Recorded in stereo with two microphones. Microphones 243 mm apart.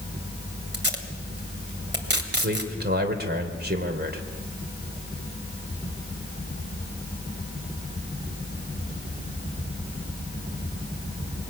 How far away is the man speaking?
About 3 m.